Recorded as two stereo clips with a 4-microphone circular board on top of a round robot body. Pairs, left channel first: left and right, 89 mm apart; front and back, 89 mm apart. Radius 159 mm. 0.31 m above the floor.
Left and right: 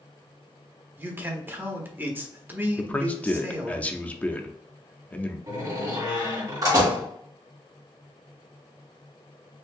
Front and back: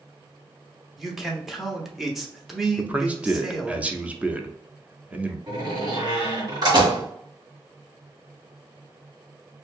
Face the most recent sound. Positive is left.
turn(degrees=-135)